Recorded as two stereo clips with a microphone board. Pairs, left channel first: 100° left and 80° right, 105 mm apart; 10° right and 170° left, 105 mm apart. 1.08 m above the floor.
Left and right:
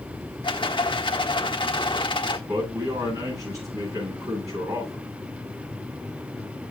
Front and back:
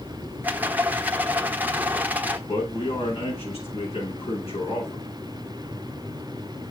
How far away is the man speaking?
About 9.5 m.